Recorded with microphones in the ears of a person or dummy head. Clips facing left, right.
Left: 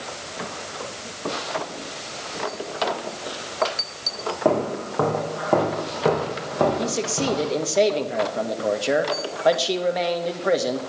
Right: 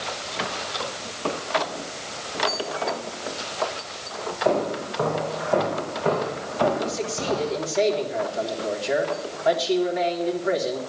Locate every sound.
4.5 s footsteps: 75° left (ahead or behind), 5.5 m; by 7.6 s 80° left, 7 m
6.8 s a man speaking: 85° left, 1.9 m